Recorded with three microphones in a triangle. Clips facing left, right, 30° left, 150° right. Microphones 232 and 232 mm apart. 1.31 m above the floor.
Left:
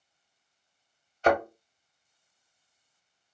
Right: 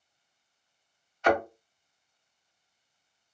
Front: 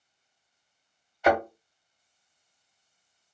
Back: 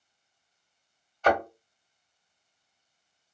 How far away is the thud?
About 1.2 m.